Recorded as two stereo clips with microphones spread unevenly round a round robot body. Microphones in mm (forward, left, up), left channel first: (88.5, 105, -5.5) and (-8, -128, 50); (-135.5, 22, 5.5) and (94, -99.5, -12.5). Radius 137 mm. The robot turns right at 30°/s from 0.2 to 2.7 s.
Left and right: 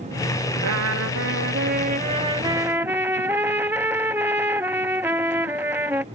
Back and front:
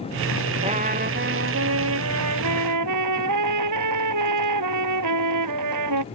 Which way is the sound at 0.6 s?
95° right.